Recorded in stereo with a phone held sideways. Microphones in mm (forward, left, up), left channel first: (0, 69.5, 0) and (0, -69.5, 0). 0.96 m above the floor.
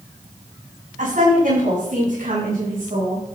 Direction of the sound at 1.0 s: 65° right (ahead or behind).